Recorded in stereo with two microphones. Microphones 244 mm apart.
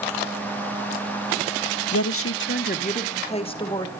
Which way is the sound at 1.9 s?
70° left (ahead or behind).